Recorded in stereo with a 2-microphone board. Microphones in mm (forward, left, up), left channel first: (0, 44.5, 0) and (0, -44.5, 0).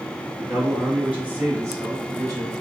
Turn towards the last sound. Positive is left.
turn(degrees=-50)  # may be behind; listen again after turning